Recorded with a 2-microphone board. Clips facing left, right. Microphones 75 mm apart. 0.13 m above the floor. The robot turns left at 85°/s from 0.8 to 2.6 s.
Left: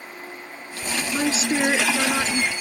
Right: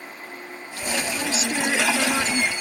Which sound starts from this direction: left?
A woman speaking, at 1.1 s.